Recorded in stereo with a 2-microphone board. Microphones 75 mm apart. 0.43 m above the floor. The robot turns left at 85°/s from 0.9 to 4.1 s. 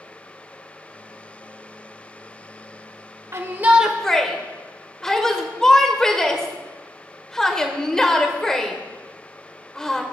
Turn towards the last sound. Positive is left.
turn(degrees=10)  # may be behind; listen again after turning